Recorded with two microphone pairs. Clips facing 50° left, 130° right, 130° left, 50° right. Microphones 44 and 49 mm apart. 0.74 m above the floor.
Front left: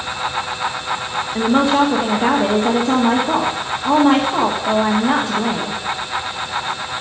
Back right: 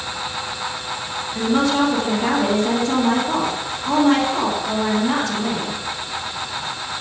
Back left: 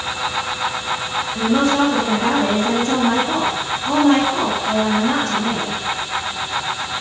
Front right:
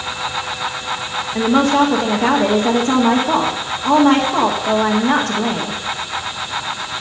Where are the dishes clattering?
I don't hear dishes clattering.